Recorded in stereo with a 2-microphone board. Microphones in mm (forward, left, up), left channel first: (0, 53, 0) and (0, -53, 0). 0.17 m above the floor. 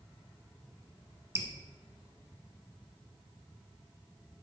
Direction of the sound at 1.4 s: 25° right (ahead or behind).